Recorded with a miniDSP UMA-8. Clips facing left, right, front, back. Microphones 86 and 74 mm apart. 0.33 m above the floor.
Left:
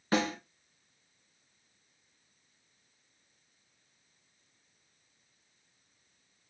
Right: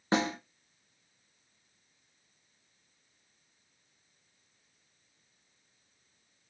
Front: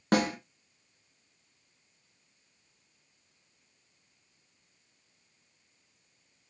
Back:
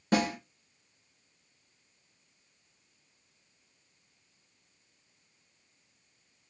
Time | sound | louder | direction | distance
0.1 | a snare drum | right 1 dB, front 1 dB | 25° right | 1.2 m